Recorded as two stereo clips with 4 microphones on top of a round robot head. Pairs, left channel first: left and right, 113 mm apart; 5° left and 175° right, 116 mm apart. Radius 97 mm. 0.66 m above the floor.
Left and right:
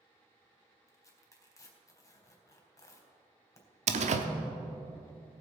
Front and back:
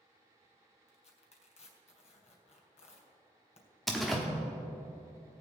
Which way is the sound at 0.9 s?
25° left.